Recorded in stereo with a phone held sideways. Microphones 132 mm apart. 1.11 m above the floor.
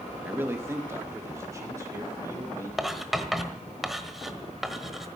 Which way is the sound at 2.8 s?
Centre (ahead or behind).